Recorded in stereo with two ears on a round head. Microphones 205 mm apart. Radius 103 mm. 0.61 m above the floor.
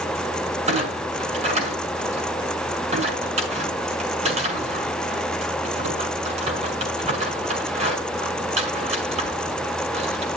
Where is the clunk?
30° right (ahead or behind), 5.5 m.